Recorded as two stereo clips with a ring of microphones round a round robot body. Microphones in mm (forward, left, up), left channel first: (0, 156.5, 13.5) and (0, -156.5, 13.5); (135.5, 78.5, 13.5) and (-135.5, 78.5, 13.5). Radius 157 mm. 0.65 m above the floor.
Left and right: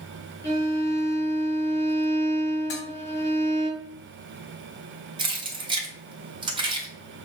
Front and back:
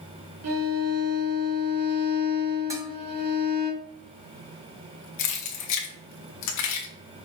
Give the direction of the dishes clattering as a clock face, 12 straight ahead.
9 o'clock.